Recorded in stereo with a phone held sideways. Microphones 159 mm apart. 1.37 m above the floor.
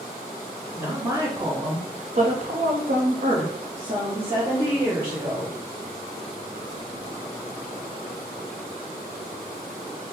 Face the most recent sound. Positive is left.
turn(degrees=-30)  # may be behind; listen again after turning